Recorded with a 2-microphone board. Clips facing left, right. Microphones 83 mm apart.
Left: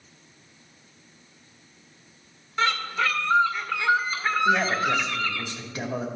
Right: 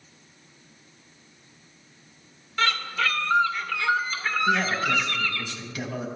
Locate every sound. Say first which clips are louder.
2.6 s a bird: left 1 dB; 20° left (ahead or behind), 1.5 m
4.5 s a man speaking: left 1 dB; 35° left (ahead or behind), 2.5 m